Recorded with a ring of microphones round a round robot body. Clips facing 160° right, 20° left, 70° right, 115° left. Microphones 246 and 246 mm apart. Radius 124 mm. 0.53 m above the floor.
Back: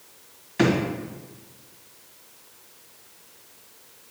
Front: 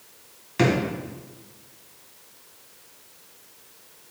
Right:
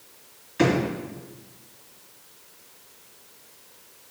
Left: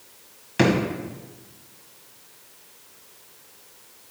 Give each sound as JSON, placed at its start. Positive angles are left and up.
{"t": 0.6, "sound": "a drawer", "azimuth_deg": 95, "distance_m": 2.0}